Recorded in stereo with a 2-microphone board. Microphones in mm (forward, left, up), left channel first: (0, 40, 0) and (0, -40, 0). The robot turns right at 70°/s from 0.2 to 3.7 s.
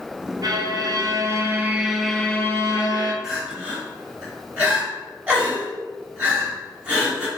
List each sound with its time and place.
0.4 s a violin: 110° right, 0.5 m; by 3.1 s 80° left, 0.5 m
3.2 s crying: centre (ahead or behind), 1.8 m; by 7.3 s 20° right (ahead or behind), 1.8 m